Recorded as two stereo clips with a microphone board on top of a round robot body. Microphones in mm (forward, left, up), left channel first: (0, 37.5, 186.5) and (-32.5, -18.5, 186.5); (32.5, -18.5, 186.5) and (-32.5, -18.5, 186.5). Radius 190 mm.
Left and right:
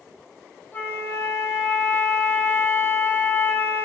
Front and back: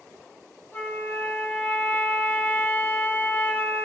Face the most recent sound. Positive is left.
turn(degrees=40)